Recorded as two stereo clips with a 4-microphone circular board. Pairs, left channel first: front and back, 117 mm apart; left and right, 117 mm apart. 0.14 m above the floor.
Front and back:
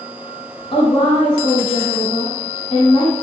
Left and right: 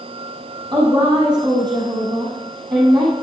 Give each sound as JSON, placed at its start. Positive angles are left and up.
{"t": 0.7, "sound": "a woman speaking", "azimuth_deg": -40, "distance_m": 5.5}